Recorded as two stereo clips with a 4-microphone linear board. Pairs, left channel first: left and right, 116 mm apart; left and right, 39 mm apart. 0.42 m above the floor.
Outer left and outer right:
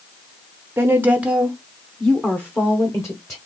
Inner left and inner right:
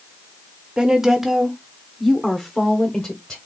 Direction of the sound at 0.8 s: 20° right (ahead or behind).